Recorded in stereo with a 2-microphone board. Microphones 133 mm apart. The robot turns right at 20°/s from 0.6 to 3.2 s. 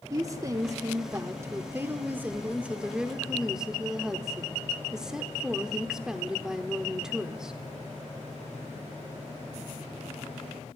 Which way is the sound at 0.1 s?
25° right (ahead or behind).